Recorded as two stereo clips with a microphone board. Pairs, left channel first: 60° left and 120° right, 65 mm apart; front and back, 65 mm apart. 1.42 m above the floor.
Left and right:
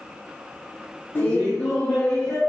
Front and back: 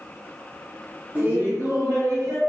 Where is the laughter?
120° left, 0.9 m; by 2.4 s 145° left, 1.4 m.